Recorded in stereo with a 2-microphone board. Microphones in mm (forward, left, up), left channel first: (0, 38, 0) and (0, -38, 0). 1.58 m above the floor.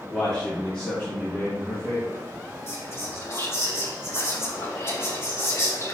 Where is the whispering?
35° left (ahead or behind), 3 m.